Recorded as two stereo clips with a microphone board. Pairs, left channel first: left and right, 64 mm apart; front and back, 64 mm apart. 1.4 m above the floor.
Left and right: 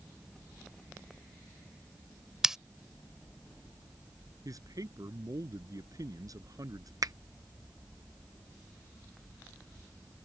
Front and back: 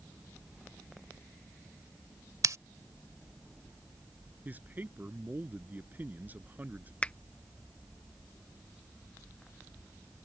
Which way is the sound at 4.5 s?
120° right.